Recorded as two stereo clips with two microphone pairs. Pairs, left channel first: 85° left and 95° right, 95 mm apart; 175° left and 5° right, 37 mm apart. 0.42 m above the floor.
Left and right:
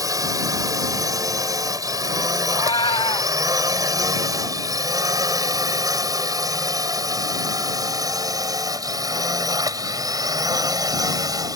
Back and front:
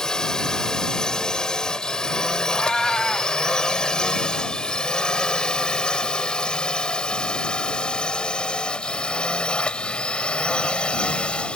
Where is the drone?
120° right; by 11.6 s 130° right.